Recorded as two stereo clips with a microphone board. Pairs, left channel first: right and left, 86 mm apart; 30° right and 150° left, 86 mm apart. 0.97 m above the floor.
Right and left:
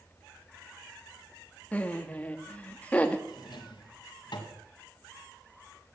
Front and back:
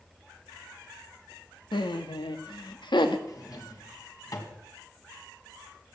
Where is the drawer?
70° right, 2.5 m.